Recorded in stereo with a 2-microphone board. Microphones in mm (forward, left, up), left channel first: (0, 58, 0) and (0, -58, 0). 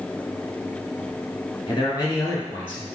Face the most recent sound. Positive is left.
turn(degrees=15)  # may be behind; listen again after turning